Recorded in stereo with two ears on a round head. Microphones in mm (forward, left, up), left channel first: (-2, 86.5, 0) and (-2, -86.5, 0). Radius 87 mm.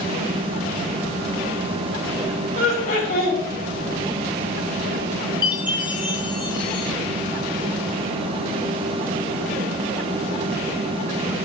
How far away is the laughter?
About 4 m.